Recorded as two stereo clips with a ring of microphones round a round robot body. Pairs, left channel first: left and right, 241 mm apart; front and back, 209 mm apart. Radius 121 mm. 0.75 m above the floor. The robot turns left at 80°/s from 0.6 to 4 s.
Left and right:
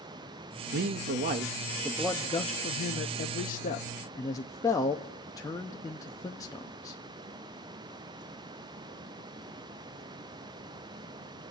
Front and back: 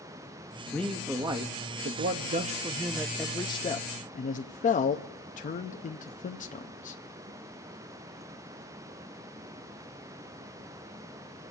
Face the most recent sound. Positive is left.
turn(degrees=20)